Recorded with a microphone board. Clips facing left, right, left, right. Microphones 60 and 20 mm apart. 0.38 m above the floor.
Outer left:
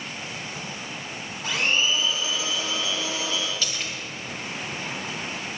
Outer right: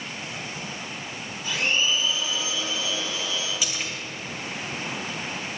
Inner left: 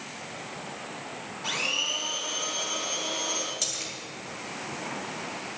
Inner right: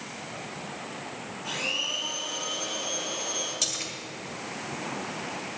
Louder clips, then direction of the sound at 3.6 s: Even, inner right 2 dB; 15° right (ahead or behind).